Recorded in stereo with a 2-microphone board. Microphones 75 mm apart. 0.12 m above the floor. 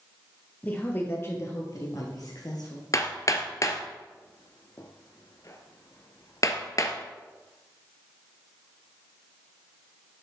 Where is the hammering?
45° left (ahead or behind), 1.1 m.